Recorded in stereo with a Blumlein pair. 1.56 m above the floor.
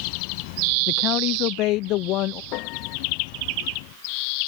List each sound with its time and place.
0.9 s a man speaking: 40° left
2.5 s a piano: 40° left